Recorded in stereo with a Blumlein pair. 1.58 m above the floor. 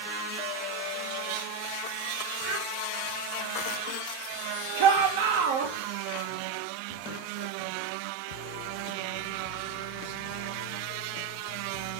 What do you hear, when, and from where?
2.4 s a child speaking: 40° right, 3 m
4.8 s a shout: 55° right, 2.0 m